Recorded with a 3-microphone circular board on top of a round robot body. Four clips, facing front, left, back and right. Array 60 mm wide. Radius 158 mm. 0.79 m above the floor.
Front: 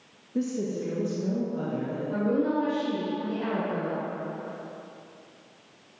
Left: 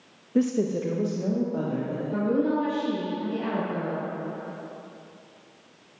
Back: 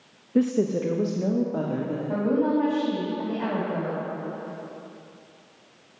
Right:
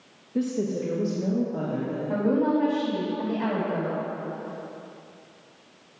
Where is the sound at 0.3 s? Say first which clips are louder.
Left 3 dB, back 7 dB; 145° left, 0.9 m; by 2.0 s 170° left, 2 m.